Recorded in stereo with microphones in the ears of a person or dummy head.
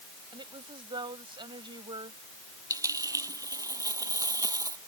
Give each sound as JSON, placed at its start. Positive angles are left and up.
{"t": 0.3, "sound": "a woman speaking", "side_deg": -20}
{"t": 2.7, "sound": "a dropped coin", "side_deg": -15}